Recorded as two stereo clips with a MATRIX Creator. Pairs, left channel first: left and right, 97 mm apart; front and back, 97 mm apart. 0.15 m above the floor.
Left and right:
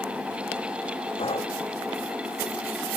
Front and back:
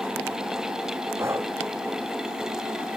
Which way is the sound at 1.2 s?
115° left.